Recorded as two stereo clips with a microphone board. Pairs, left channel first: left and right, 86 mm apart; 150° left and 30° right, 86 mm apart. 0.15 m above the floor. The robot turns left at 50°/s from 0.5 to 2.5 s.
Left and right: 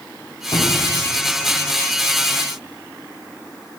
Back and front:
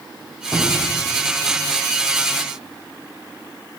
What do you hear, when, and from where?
0.5 s a cupboard door: 75° left, 5 m; by 0.9 s 55° left, 5 m